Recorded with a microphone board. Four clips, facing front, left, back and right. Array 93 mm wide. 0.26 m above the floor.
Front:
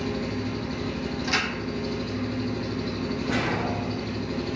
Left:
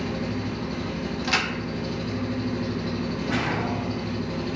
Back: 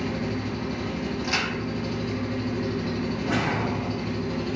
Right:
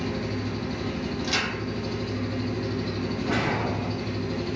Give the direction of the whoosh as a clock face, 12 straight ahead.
5 o'clock.